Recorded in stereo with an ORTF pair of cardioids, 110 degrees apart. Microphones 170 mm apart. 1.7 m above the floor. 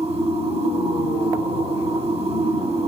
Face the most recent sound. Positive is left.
turn(degrees=-35)